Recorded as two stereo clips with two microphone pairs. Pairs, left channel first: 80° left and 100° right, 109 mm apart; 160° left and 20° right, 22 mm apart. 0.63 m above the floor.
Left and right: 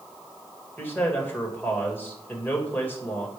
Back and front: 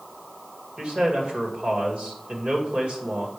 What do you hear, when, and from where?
0.8 s a man speaking: 10° left, 2 m